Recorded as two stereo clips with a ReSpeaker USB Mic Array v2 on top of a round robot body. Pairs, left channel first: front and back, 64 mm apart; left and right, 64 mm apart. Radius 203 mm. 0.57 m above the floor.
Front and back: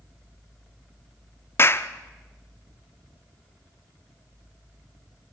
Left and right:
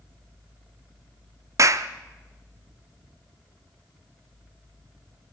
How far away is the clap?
About 0.9 m.